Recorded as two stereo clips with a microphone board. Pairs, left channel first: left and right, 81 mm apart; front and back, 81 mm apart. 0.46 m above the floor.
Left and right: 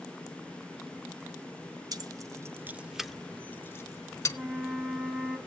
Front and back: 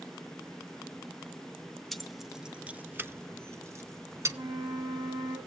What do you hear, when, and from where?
1.9 s keys jangling: 85° right, 0.9 m; by 4.4 s 130° left, 1.1 m
4.3 s a flute: 170° right, 2.5 m